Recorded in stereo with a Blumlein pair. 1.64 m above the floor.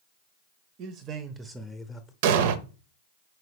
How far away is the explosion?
About 0.6 m.